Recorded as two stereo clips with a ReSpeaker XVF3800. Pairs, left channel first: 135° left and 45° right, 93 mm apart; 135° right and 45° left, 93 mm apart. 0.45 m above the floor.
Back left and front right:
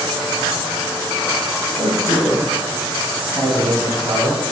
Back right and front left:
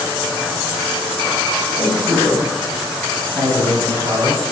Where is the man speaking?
25° right, 2.0 m; by 4.4 s 30° left, 4.5 m.